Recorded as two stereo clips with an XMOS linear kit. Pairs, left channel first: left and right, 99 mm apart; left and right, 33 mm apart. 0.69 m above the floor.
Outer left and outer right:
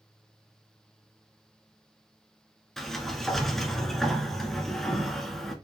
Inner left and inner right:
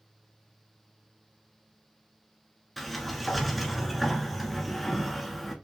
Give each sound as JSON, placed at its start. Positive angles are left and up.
{"t": 2.8, "sound": "a sliding door", "side_deg": 5, "distance_m": 1.3}